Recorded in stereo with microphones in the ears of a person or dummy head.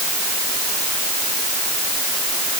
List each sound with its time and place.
Only background noise.